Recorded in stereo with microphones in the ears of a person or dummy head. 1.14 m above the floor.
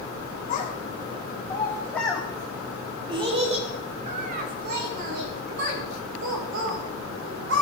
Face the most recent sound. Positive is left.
turn(degrees=-65)  # may be behind; listen again after turning